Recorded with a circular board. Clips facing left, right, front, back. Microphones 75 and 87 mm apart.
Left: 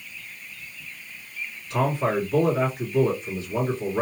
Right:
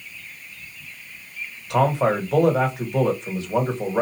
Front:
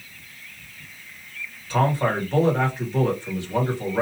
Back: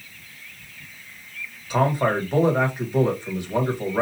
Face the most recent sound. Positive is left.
turn(degrees=-105)